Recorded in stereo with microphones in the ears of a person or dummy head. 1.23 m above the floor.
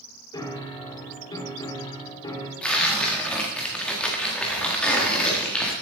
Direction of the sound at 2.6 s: Centre (ahead or behind).